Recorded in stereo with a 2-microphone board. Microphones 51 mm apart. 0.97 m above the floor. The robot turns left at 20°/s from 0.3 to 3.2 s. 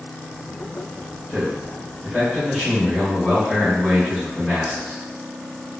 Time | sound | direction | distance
1.3 | a man speaking | 155° right | 1.5 m